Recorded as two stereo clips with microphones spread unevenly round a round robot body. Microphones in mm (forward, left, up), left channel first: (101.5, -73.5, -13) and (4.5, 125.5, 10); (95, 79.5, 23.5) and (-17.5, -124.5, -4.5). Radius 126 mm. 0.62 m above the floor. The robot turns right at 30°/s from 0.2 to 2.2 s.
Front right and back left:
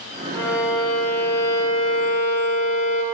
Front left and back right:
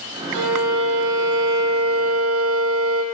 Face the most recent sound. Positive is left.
turn(degrees=-95)